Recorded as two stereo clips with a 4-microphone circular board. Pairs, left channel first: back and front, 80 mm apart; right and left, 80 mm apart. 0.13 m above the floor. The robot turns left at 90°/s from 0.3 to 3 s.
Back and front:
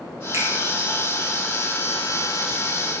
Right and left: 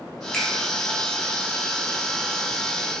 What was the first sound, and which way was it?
A finger snap, 15° right.